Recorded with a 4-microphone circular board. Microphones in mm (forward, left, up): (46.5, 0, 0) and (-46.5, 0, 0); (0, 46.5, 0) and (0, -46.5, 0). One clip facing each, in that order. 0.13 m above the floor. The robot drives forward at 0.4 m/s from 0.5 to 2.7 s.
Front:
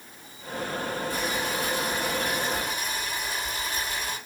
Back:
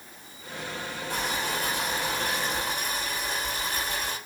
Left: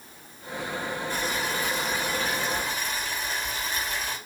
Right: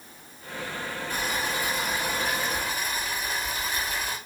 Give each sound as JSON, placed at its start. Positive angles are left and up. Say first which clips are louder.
{"t": 1.1, "sound": "boiling", "louder": "front 1 dB, right 2 dB", "azimuth_deg": -165, "distance_m": 5.5}